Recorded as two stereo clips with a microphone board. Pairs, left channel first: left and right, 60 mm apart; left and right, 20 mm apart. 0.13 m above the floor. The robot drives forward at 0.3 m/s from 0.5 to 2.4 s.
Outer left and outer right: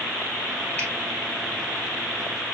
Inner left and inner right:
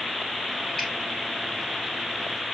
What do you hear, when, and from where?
0.8 s a finger snap: 30° left (ahead or behind), 1.8 m